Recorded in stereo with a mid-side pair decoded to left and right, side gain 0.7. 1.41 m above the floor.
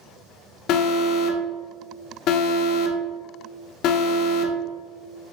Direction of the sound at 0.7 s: 55° left.